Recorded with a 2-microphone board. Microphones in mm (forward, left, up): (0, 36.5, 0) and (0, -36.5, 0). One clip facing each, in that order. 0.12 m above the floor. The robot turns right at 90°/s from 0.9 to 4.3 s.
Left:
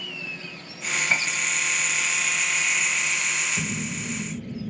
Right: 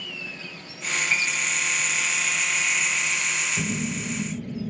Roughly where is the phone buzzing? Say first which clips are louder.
Right 2 dB; right.